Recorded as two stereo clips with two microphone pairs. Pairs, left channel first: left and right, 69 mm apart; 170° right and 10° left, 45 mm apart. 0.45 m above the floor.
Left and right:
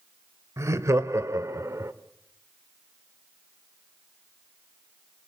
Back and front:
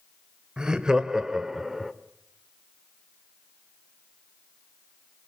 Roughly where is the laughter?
Ahead right.